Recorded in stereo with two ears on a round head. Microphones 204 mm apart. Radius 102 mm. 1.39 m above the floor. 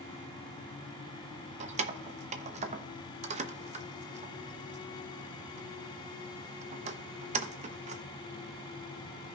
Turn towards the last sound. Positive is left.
turn(degrees=-30)  # may be behind; listen again after turning